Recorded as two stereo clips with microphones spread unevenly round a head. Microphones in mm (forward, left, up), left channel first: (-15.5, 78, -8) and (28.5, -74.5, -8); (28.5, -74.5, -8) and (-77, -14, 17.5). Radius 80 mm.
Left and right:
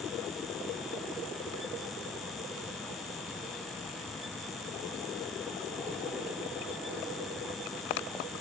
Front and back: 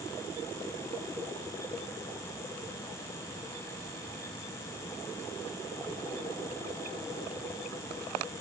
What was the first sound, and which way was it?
Only background noise.